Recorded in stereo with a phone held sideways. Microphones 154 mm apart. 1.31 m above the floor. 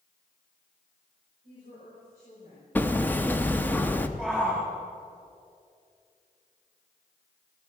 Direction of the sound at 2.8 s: 15° left (ahead or behind).